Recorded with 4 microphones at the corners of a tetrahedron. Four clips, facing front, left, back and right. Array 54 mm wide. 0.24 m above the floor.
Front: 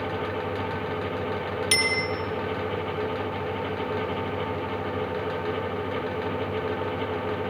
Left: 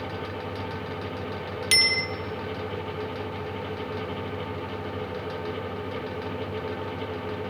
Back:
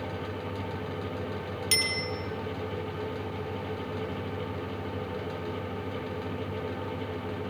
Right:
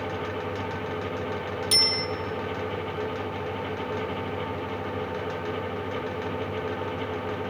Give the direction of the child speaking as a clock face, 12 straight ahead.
I don't hear a child speaking.